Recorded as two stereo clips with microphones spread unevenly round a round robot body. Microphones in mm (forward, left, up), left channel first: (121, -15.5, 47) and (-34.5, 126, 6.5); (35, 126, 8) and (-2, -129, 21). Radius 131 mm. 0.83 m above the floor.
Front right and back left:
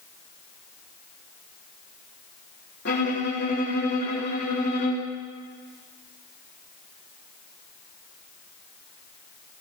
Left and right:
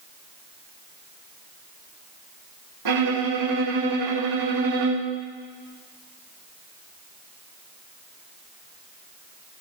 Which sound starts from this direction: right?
A violin, at 2.9 s.